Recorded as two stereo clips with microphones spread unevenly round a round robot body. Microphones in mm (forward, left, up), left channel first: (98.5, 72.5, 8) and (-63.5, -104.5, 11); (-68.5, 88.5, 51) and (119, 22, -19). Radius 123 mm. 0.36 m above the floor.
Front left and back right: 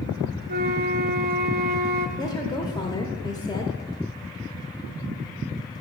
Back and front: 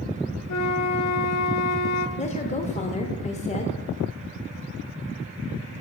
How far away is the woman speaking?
About 1.0 m.